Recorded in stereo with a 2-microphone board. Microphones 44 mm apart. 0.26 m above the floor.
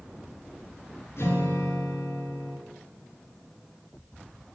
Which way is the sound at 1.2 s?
65° left (ahead or behind).